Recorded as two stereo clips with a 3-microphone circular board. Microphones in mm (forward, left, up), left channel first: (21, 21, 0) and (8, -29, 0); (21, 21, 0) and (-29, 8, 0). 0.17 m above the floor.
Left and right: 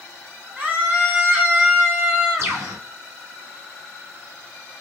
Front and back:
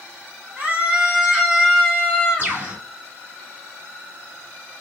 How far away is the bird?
About 2.5 m.